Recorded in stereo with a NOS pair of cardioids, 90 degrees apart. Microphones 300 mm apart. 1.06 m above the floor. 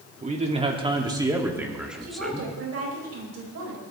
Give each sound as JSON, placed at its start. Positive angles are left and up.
{"t": 0.2, "sound": "a man speaking", "azimuth_deg": -25, "distance_m": 3.0}
{"t": 2.0, "sound": "a woman speaking", "azimuth_deg": -55, "distance_m": 5.0}